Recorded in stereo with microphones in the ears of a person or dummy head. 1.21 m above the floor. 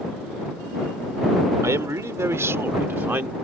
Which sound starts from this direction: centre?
A man speaking, at 1.6 s.